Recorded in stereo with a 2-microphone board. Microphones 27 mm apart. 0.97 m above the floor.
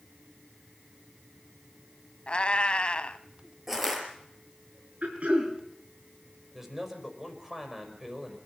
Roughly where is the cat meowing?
Left.